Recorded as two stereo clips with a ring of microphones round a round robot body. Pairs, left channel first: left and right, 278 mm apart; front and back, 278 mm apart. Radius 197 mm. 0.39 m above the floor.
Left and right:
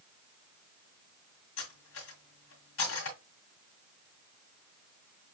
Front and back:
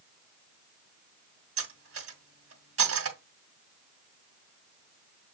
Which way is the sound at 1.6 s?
145° left.